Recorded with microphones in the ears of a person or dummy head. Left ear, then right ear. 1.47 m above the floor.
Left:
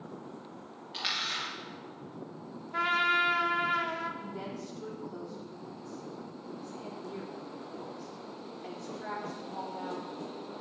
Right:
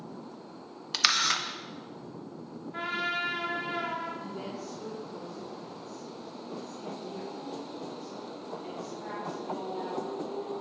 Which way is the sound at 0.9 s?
60° right (ahead or behind).